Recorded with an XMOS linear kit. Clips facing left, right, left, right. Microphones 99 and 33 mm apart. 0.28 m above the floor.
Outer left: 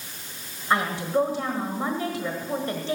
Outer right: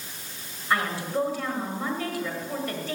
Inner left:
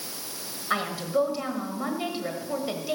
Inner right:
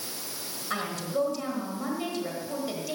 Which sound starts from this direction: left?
A woman speaking, at 0.7 s.